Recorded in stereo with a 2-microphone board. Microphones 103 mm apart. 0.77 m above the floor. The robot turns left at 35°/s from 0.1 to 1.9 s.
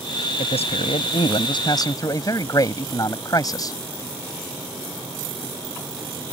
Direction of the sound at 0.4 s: 90° left.